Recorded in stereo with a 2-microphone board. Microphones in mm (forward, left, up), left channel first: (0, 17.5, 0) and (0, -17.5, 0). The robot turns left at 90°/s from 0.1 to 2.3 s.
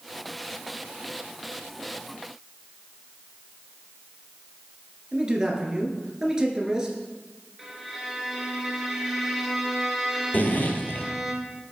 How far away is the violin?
About 1.5 m.